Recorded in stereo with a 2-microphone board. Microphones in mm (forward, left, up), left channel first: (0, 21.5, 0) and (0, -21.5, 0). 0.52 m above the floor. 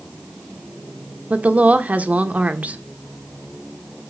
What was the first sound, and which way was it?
A woman speaking, 35° right (ahead or behind).